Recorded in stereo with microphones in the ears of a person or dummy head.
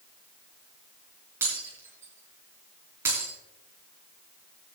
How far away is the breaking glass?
About 5 m.